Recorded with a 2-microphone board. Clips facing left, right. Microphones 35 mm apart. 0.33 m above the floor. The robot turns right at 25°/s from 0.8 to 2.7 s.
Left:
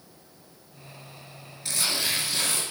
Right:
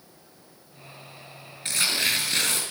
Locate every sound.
1.6 s tearing paper: 40° right (ahead or behind), 3 m; by 2.6 s 65° right (ahead or behind), 3 m